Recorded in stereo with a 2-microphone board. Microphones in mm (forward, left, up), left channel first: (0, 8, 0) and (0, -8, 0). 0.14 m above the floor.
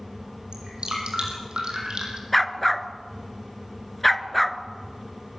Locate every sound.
0.5 s dripping: 75° right (ahead or behind), 5.5 m
2.3 s a dog barking: 5° left (ahead or behind), 1.0 m